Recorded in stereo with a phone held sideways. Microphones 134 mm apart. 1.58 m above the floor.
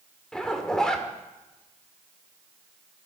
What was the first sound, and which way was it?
A zipper, 5° left (ahead or behind).